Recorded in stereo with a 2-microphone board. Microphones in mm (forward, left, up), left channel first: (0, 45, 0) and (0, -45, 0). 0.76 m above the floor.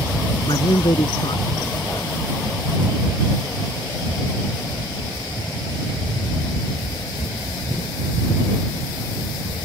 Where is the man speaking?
65° left (ahead or behind).